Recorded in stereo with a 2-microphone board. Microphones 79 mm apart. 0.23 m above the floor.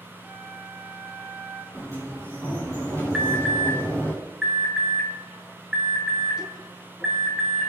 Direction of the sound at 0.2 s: 15° right (ahead or behind).